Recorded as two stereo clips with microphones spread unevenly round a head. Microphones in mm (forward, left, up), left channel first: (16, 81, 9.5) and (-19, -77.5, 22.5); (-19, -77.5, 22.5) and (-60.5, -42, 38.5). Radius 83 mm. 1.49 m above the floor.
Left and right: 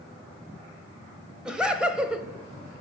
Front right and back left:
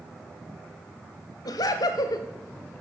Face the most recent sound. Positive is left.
turn(degrees=-20)